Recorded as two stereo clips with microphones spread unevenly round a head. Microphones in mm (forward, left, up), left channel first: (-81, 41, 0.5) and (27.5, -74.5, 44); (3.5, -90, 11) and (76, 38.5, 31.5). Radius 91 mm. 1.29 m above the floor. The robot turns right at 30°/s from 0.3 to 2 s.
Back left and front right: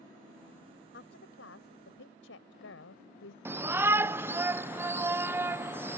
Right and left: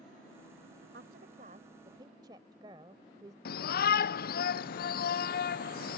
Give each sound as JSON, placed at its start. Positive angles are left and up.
{"t": 0.9, "sound": "a woman speaking", "azimuth_deg": 95}
{"t": 3.5, "sound": "a shout", "azimuth_deg": -130}